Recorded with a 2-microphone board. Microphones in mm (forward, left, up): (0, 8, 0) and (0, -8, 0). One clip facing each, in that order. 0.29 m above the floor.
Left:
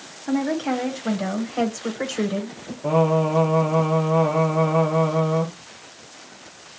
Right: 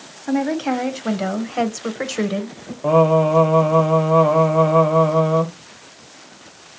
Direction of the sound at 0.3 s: 15° right (ahead or behind).